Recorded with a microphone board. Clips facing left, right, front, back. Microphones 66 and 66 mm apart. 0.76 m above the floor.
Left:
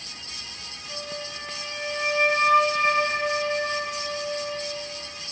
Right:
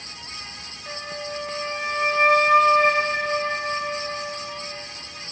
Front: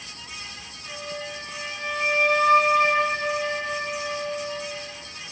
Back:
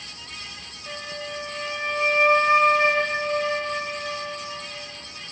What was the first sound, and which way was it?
A flute, 125° right.